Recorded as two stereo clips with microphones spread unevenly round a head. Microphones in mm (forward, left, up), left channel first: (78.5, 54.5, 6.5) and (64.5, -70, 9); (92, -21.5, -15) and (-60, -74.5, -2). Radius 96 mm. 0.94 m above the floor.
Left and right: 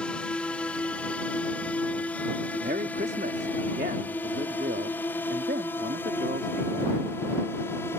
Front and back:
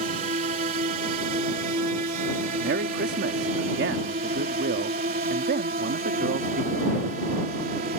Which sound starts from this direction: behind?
A drone, at 0.0 s.